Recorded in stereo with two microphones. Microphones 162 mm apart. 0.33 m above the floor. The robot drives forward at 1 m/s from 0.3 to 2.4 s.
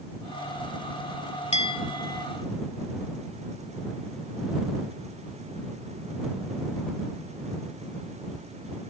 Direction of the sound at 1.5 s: 40° left (ahead or behind).